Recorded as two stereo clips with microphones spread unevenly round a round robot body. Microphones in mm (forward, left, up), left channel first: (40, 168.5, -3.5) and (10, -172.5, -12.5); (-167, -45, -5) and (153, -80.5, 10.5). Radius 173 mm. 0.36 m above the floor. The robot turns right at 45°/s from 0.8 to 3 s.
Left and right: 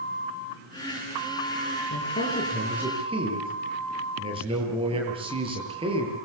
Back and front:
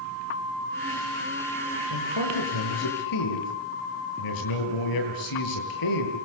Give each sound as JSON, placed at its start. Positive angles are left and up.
{"t": 1.9, "sound": "a man speaking", "azimuth_deg": 140, "distance_m": 8.0}